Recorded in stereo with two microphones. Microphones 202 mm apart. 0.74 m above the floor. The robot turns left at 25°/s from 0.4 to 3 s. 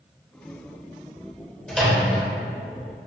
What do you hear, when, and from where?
1.7 s a microwave: 5° left (ahead or behind), 0.7 m; by 2.2 s 10° left (ahead or behind), 0.7 m